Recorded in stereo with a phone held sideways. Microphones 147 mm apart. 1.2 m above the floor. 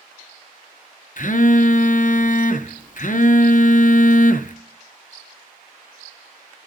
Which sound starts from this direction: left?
A phone buzzing, at 1.2 s.